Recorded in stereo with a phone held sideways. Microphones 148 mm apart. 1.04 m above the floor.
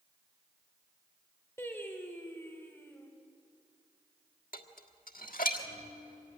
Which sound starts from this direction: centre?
Singing, at 1.6 s.